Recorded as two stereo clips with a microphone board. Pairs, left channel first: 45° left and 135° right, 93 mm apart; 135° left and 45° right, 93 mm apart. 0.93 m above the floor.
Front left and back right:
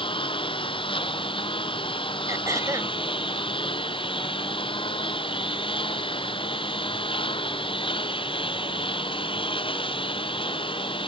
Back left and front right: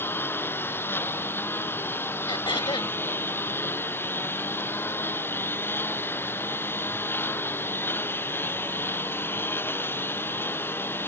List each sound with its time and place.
0.0 s a lawn mower: 70° left
2.3 s throat clearing: 170° left